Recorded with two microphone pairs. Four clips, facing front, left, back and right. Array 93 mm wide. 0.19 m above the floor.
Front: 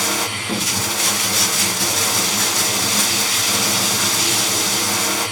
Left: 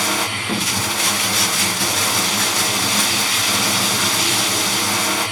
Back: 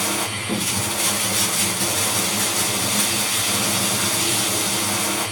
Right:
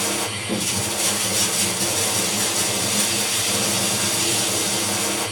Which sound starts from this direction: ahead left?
Running water, at 0.0 s.